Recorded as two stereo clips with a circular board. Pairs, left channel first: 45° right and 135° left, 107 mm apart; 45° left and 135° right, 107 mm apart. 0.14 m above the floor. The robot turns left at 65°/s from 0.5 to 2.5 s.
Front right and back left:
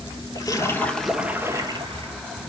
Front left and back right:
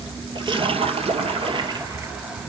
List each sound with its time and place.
0.3 s a splash: 100° right, 1.0 m; by 2.1 s 155° left, 1.0 m